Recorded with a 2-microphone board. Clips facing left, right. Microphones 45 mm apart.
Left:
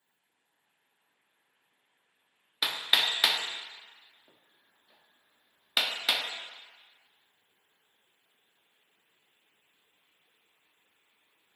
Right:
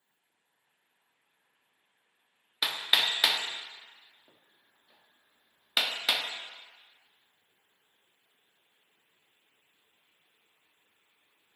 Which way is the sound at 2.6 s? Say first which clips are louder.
Even; centre (ahead or behind).